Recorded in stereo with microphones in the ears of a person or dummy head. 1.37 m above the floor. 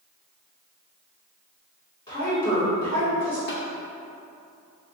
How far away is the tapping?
About 1.1 m.